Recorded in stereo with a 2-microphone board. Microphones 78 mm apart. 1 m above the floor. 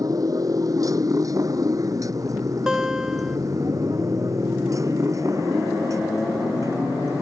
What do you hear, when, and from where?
0.0 s a motorcycle: 50° right (ahead or behind); by 7.2 s 40° right (ahead or behind)
2.7 s a guitar: 10° right (ahead or behind)